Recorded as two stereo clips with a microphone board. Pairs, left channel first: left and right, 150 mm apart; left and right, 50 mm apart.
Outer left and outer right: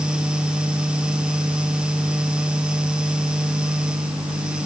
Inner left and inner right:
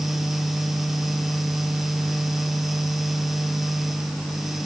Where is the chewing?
I don't hear chewing.